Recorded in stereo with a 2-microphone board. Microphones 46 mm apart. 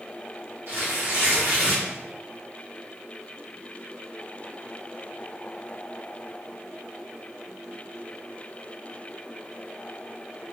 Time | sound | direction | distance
0.7 | tearing paper | 85° right | 2.0 m